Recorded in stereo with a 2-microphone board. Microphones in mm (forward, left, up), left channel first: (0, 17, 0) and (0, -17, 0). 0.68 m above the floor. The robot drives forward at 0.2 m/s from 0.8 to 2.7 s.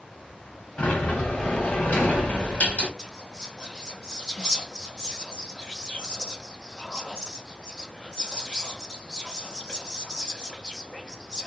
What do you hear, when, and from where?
0.8 s a sliding door: 55° left (ahead or behind), 1.6 m; by 2.9 s 45° left (ahead or behind), 1.8 m
3.0 s whispering: 20° left (ahead or behind), 0.5 m